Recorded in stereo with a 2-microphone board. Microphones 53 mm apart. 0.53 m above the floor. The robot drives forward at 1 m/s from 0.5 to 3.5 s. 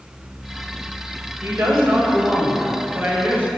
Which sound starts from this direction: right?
A woman speaking, at 1.4 s.